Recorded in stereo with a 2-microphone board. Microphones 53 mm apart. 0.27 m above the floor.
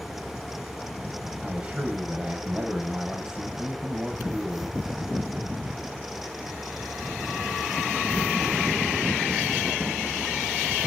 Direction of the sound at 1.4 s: 20° right (ahead or behind).